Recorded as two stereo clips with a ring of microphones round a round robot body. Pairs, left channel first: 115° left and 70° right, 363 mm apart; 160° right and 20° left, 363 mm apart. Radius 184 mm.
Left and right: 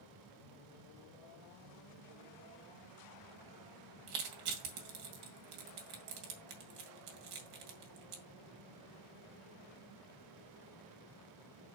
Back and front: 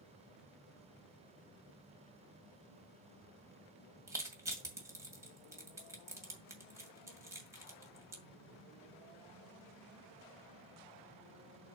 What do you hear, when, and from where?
4.1 s crushing: 60° right, 2 m